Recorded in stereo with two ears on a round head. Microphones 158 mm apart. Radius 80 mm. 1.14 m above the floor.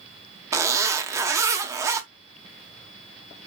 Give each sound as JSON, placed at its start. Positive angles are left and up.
{"t": 0.5, "sound": "a zipper", "side_deg": -15, "distance_m": 0.7}